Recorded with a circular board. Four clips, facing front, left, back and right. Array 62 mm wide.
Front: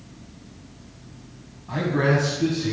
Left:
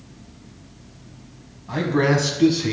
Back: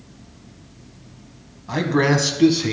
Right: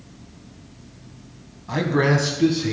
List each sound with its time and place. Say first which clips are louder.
1.7 s a man speaking: even, back 3 dB; 145° right, 1.0 m; by 2.7 s 160° left, 1.3 m